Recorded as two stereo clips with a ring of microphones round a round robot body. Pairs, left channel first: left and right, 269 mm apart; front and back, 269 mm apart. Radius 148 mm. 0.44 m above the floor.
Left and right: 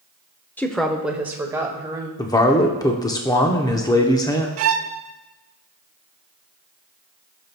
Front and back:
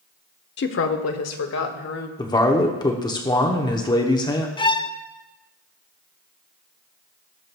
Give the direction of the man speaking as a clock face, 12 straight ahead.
11 o'clock.